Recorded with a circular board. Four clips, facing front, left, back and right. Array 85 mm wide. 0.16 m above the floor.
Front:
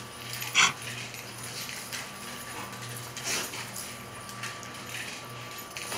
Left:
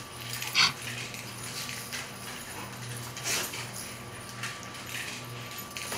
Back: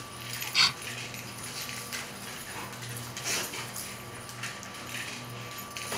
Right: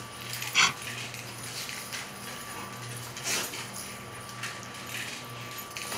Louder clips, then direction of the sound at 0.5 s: Right 3 dB, front 5 dB; 30° right.